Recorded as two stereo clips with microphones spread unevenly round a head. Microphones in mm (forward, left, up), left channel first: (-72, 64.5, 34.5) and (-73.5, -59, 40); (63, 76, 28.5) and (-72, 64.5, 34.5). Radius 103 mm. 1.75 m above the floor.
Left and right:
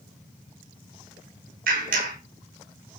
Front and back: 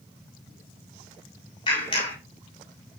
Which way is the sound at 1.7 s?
65° right.